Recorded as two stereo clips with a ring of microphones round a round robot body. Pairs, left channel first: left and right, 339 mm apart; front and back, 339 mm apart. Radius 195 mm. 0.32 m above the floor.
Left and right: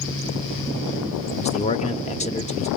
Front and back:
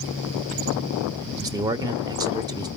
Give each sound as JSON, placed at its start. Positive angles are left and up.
{"t": 1.4, "sound": "a man speaking", "azimuth_deg": 120, "distance_m": 0.8}